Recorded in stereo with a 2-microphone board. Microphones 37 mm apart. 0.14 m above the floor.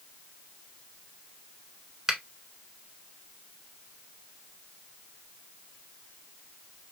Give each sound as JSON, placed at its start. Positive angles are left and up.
{"t": 2.1, "sound": "a finger snap", "side_deg": -15, "distance_m": 1.2}